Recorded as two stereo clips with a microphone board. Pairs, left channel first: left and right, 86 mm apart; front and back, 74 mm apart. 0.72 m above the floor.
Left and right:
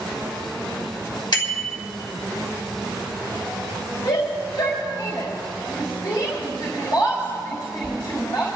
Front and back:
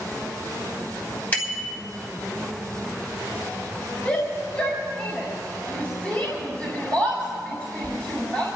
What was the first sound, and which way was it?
A bicycle bell, 65° left.